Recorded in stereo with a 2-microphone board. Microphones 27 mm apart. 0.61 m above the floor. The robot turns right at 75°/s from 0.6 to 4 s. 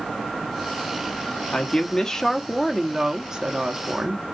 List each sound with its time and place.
1.5 s a woman speaking: 90° left, 0.8 m; by 4.2 s 85° right, 0.8 m